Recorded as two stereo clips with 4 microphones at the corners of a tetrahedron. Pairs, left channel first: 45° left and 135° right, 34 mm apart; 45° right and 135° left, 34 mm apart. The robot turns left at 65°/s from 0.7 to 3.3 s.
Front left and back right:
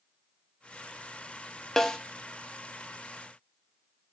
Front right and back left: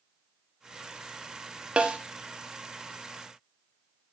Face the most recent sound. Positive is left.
turn(degrees=10)